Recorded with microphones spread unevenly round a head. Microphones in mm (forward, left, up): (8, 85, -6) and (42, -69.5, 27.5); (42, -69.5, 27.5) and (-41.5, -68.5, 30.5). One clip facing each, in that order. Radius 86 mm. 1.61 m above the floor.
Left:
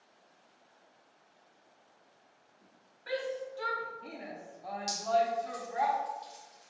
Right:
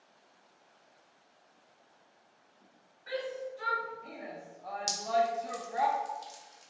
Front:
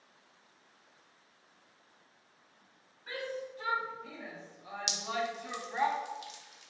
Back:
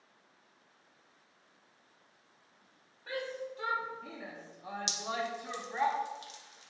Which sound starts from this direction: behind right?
Dripping, at 4.9 s.